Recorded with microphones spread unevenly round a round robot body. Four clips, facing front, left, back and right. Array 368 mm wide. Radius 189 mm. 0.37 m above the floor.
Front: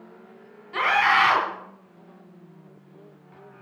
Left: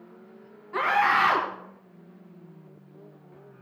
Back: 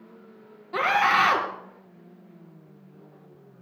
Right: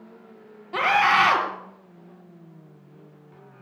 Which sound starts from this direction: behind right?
A scream, at 0.7 s.